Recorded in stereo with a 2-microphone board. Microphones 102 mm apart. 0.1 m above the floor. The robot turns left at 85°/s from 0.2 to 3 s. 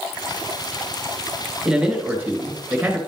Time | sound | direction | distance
1.6 | a man speaking | 5° right (ahead or behind) | 1.6 m